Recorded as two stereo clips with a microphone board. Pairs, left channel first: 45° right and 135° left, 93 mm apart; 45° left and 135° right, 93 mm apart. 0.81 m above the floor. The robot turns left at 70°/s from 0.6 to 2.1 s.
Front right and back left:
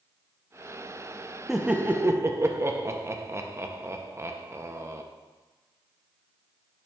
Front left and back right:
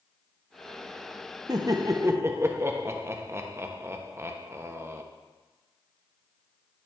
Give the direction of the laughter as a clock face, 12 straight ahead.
5 o'clock.